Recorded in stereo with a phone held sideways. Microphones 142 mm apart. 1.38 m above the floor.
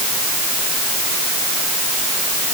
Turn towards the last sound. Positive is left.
No sound to turn to.